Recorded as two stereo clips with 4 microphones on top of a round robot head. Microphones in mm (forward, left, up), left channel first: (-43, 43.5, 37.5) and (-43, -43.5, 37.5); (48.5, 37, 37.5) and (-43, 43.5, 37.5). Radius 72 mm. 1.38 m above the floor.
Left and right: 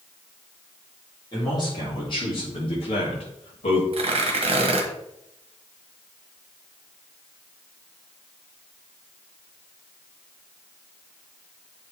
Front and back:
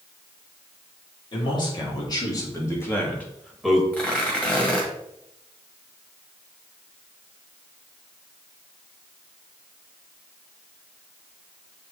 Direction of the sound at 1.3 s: 30° left.